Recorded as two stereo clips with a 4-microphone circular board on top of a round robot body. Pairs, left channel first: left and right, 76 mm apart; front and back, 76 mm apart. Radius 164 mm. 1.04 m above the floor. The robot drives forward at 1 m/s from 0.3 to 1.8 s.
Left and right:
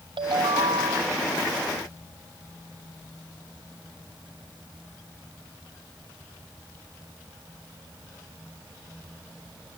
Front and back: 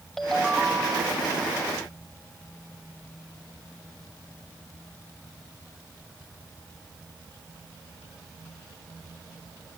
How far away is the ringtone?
About 1.1 m.